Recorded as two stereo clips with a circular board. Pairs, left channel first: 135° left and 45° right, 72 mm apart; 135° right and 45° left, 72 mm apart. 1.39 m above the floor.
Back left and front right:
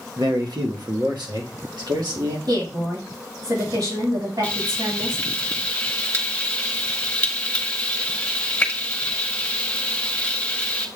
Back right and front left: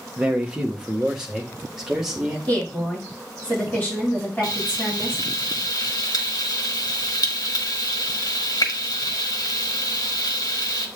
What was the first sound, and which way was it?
A man speaking, 30° right.